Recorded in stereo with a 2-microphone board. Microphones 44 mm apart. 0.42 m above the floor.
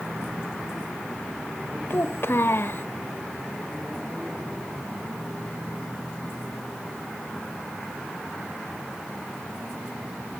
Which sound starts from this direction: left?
A child speaking, at 1.9 s.